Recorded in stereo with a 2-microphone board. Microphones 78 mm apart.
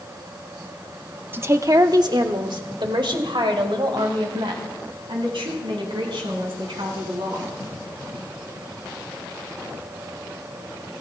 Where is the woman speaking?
25° right (ahead or behind), 0.6 m; by 7.5 s 80° right, 5.5 m.